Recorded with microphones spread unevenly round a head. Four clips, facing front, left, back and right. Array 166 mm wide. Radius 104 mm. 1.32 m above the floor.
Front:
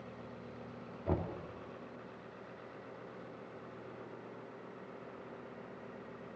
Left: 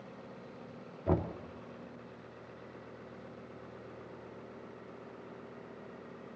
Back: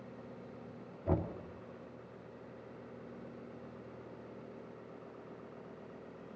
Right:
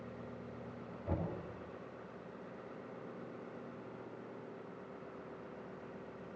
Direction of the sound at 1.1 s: 65° left.